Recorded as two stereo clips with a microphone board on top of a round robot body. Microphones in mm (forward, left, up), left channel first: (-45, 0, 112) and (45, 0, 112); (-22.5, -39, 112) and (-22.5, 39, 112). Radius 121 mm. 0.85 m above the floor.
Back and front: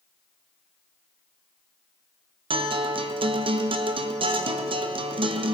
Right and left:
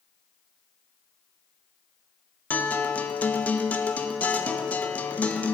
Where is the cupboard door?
I don't hear a cupboard door.